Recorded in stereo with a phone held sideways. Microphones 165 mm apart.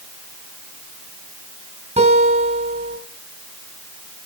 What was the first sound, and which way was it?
A guitar, 40° right (ahead or behind).